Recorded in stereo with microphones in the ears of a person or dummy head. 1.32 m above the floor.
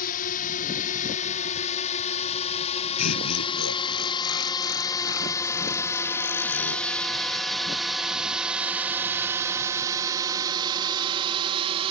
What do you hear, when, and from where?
0.0 s a drone: 50° left (ahead or behind); by 11.9 s 25° right (ahead or behind)
3.0 s laughter: 90° left